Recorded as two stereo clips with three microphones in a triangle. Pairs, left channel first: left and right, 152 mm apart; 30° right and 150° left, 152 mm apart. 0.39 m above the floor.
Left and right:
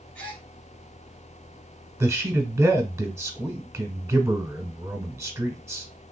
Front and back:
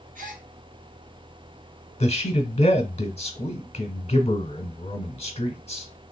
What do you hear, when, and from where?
0.1 s a gasp: 170° left, 1.6 m
2.0 s a man speaking: 25° right, 1.0 m